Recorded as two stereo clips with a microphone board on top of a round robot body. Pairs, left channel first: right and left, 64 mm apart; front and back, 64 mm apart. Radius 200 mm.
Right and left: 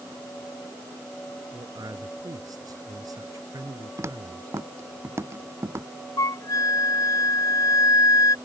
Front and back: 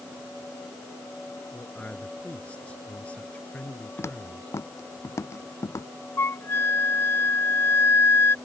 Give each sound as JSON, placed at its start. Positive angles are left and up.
{"t": 1.5, "sound": "a man speaking", "azimuth_deg": 70}
{"t": 4.0, "sound": "footsteps", "azimuth_deg": 45}
{"t": 6.2, "sound": "a flute", "azimuth_deg": -55}